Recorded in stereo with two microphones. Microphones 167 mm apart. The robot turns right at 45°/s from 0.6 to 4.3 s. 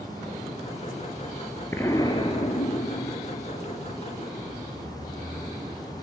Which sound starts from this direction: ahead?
An explosion, at 1.7 s.